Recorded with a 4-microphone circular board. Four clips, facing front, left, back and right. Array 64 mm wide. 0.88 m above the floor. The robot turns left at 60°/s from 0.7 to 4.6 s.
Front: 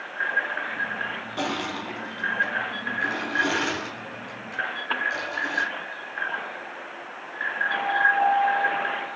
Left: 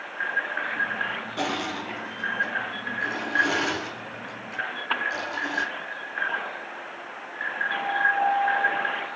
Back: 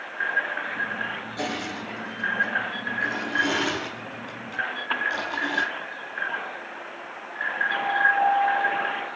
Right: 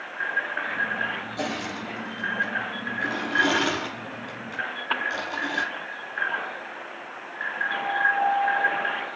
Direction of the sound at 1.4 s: 40° left.